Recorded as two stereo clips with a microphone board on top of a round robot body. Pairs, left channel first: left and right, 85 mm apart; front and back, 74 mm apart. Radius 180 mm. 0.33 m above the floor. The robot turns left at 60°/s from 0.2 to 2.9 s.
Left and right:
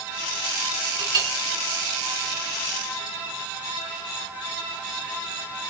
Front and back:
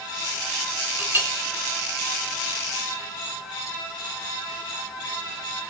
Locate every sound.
1.0 s a clink: 110° right, 3.5 m; by 1.3 s 130° right, 3.5 m